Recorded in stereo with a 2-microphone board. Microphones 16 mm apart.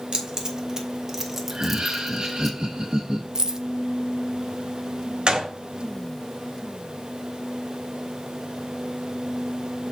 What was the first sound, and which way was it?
Keys jangling, 50° right (ahead or behind).